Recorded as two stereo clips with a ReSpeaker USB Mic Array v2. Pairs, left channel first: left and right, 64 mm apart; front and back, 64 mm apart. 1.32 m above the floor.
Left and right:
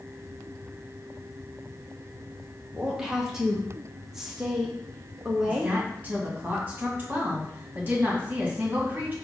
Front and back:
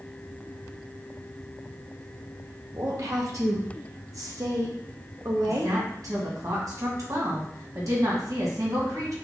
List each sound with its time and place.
2.7 s a woman speaking: 175° right, 0.9 m
5.5 s a woman speaking: 155° right, 1.8 m